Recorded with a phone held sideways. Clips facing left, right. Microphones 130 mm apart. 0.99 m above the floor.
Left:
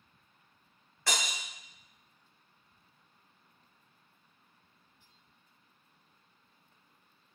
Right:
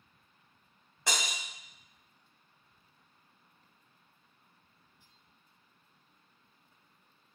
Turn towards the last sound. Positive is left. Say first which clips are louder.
# even
turn(degrees=-20)  # may be behind; listen again after turning